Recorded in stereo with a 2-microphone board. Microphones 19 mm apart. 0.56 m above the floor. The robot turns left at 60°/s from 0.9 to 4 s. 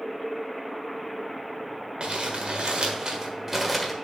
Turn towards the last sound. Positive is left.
turn(degrees=175)